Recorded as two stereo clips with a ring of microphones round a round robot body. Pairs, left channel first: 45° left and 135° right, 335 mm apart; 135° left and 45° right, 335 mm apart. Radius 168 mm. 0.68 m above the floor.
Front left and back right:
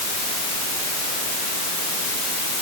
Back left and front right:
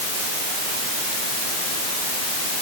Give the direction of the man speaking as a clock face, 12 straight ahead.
No man speaking in this recording.